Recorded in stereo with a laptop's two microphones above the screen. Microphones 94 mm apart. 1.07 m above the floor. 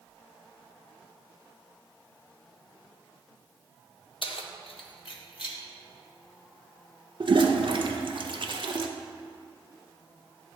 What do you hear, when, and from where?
4.2 s keys jangling: 65° left (ahead or behind), 0.6 m; by 5.6 s 60° left (ahead or behind), 1.4 m
7.2 s a toilet flushing: 60° right (ahead or behind), 0.6 m